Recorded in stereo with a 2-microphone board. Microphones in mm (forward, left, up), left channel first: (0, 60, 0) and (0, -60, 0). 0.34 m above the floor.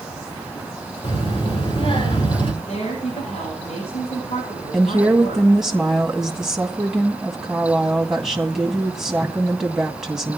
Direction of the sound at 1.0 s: 55° left (ahead or behind).